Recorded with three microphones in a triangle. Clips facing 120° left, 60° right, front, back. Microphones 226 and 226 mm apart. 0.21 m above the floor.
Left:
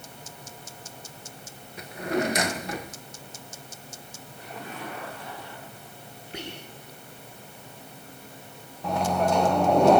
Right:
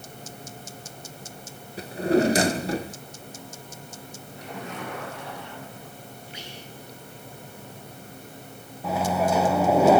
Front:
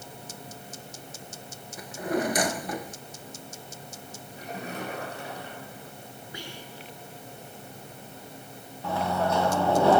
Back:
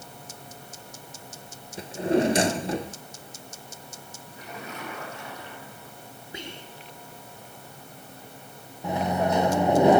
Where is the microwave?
140° right, 0.8 m.